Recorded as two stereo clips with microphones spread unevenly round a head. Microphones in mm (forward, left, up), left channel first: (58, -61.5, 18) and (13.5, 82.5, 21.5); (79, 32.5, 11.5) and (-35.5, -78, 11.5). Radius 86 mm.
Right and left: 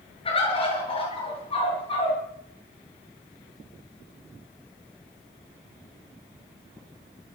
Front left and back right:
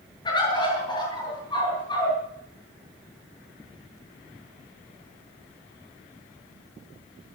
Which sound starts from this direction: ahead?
A bird, at 0.2 s.